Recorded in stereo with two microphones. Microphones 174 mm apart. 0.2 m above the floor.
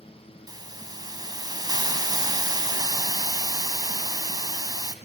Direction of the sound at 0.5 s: 20° right (ahead or behind).